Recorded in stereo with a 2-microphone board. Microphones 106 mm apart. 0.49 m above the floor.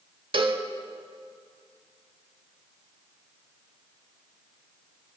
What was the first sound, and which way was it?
A cowbell, 55° right (ahead or behind).